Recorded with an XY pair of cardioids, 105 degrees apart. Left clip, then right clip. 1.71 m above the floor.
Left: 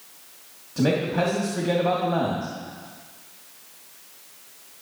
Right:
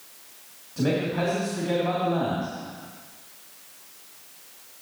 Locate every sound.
0.8 s a man speaking: 45° left, 2.5 m